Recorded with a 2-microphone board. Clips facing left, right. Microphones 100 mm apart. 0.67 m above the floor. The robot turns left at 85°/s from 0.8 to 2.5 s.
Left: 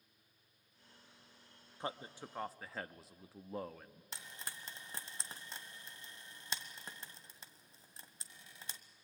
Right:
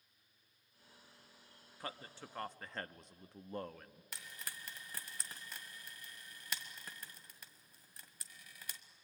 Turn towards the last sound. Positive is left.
turn(degrees=25)  # may be behind; listen again after turning